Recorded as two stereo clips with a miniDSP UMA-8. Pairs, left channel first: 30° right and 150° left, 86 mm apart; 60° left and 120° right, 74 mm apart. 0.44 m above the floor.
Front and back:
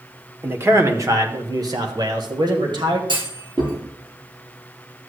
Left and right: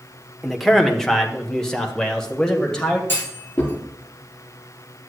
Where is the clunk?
125° left, 2.5 m.